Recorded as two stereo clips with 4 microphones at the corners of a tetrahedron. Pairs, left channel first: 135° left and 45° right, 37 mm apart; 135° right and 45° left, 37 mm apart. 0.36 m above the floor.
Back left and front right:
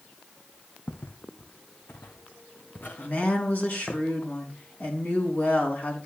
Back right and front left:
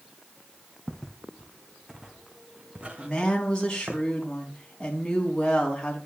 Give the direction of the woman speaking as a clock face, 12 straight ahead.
7 o'clock.